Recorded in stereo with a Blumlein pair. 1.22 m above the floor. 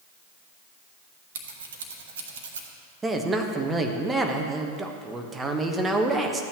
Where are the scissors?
60° right, 1.3 m.